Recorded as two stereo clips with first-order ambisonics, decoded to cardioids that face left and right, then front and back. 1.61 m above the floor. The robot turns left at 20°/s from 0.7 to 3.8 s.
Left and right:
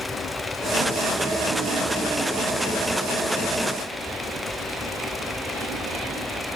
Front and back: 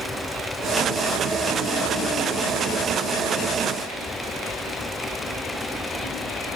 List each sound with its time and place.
Only background noise.